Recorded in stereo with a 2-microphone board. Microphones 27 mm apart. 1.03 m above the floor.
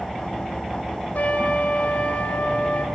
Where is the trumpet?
70° left (ahead or behind), 3 m.